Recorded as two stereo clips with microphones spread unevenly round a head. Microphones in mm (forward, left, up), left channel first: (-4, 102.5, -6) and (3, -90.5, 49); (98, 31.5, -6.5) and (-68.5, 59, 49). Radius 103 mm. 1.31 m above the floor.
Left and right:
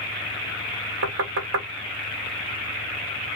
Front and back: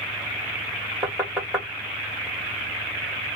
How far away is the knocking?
About 1.4 m.